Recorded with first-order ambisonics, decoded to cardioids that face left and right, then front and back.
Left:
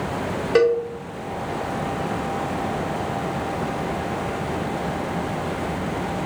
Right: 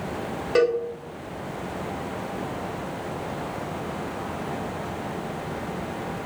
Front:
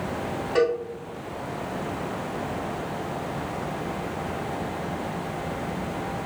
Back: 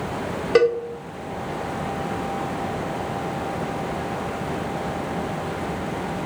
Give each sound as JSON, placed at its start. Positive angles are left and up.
{"t": 0.6, "sound": "a cowbell", "azimuth_deg": 175, "distance_m": 1.7}